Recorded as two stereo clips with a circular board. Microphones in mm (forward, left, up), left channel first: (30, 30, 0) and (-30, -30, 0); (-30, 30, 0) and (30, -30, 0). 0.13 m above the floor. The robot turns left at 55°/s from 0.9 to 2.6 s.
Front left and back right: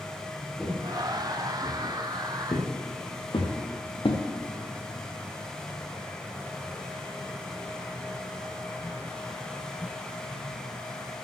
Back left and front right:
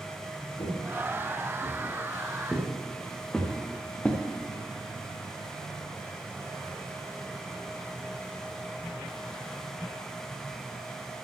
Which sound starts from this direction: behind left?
Footsteps, at 0.6 s.